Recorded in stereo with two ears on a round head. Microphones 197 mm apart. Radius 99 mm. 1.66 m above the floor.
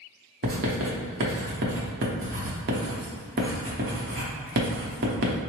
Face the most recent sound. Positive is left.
turn(degrees=-40)  # may be behind; listen again after turning